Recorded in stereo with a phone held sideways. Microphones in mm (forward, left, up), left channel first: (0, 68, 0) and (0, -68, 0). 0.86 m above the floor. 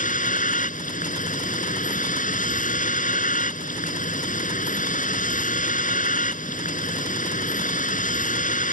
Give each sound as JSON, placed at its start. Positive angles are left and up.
{"t": 0.0, "sound": "a vehicle", "side_deg": 75}